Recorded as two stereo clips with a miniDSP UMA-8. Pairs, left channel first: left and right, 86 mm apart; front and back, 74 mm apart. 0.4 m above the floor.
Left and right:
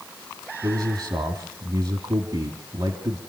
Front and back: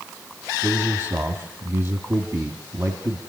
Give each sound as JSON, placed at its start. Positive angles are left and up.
{"t": 0.6, "sound": "a man speaking", "azimuth_deg": -120, "distance_m": 2.5}